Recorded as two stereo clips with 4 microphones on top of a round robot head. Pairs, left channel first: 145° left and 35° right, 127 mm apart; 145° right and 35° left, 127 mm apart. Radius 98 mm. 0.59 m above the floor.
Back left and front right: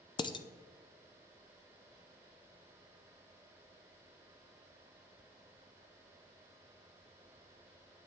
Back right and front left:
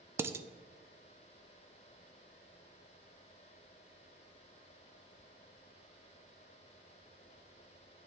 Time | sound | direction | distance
0.2 | dishes clattering | 100° left | 0.6 m